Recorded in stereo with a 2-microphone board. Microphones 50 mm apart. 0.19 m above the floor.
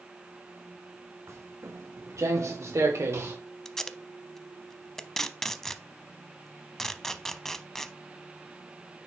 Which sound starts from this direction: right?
Footsteps, at 1.3 s.